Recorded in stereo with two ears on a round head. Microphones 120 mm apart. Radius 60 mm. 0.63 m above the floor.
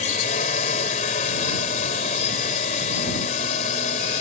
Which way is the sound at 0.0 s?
55° left (ahead or behind).